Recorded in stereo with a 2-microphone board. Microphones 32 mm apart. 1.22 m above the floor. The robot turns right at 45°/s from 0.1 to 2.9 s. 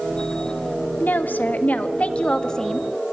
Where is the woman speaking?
85° left, 1.5 m; by 2.9 s 170° left, 1.5 m.